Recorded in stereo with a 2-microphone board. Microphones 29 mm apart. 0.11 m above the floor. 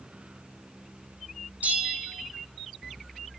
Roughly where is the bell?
Right.